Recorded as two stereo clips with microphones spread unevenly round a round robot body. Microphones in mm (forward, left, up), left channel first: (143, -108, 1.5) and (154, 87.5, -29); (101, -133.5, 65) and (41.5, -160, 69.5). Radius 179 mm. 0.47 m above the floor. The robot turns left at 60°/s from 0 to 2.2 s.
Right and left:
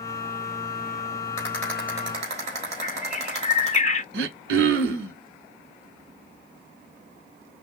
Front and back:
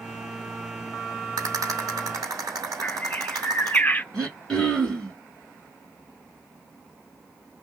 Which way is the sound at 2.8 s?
35° right.